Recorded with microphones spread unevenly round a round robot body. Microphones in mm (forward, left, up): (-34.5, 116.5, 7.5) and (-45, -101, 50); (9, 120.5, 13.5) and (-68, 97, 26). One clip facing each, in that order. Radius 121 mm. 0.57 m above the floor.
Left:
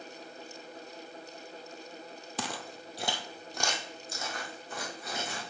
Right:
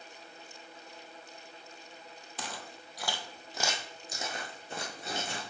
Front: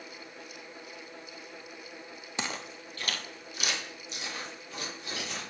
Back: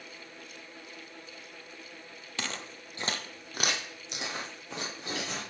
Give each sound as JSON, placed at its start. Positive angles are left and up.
{"t": 2.4, "sound": "footsteps", "azimuth_deg": 90, "distance_m": 0.8}